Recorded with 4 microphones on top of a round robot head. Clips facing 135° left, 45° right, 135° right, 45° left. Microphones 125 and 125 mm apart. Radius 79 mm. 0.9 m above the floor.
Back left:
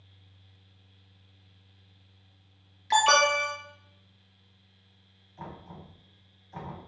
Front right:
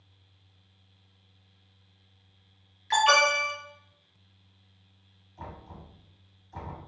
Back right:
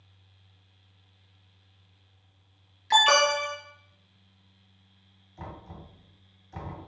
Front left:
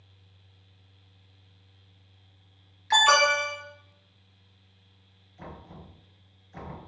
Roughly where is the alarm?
Behind.